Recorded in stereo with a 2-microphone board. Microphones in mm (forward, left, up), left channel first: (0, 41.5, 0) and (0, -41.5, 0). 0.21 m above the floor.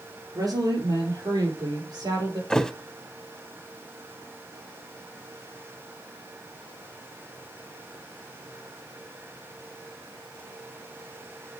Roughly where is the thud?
Centre.